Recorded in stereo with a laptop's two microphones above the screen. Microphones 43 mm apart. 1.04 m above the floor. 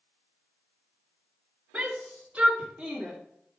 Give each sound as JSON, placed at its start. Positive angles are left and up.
{"t": 1.7, "sound": "a shout", "side_deg": -20, "distance_m": 3.0}